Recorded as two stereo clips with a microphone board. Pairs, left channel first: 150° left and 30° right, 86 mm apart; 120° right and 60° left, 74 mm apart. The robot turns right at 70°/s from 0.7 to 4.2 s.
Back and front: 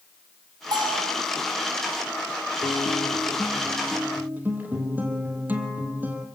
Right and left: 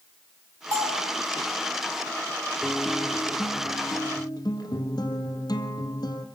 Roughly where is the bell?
Ahead.